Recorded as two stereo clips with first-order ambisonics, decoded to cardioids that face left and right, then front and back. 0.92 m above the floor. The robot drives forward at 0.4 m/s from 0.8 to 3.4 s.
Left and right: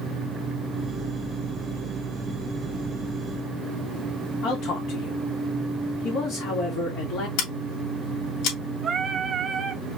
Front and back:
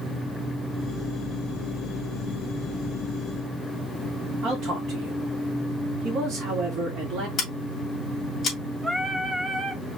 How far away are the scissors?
About 2.5 m.